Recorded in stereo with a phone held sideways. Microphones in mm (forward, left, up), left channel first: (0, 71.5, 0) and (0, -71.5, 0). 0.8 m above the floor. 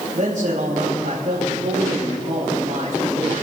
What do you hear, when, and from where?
0.1 s a man speaking: 75° right (ahead or behind), 4.5 m